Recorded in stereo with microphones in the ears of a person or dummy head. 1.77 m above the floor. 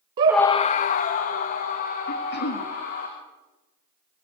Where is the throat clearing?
60° left (ahead or behind), 3.5 m.